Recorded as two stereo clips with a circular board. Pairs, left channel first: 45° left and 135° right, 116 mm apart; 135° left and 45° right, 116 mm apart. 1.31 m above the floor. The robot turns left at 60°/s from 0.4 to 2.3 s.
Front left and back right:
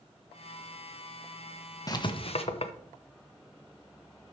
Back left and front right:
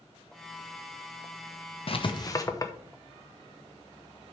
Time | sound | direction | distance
1.9 | writing | 100° left | 0.9 m